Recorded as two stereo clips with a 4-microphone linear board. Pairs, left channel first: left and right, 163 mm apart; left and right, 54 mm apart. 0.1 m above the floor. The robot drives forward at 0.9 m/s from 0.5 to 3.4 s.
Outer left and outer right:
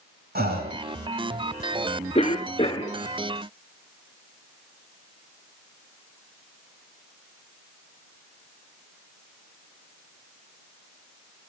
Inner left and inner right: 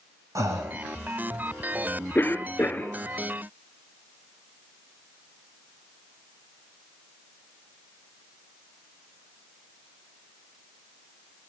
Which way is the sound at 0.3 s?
70° right (ahead or behind).